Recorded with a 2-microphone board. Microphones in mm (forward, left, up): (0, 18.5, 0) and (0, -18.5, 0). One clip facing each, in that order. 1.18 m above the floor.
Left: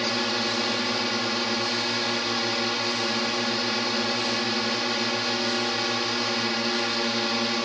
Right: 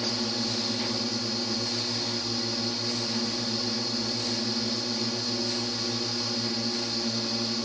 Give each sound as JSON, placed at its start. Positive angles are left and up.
{"t": 0.0, "sound": "a drone", "side_deg": 65}